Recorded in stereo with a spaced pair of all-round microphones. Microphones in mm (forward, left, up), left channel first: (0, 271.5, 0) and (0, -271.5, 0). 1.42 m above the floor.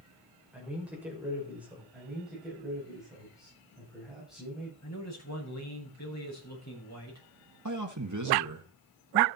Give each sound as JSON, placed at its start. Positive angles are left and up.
{"t": 0.5, "sound": "a man speaking", "side_deg": -5, "distance_m": 6.0}
{"t": 1.9, "sound": "a man speaking", "side_deg": 0, "distance_m": 7.0}
{"t": 4.8, "sound": "a man speaking", "side_deg": 30, "distance_m": 6.5}
{"t": 7.7, "sound": "a man speaking", "side_deg": -35, "distance_m": 1.7}